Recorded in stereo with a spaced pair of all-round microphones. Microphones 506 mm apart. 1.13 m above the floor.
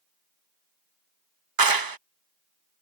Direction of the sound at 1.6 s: 45° right (ahead or behind).